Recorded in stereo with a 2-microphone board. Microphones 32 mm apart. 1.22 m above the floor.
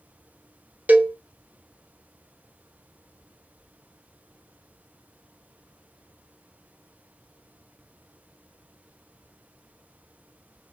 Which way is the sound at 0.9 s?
70° right (ahead or behind).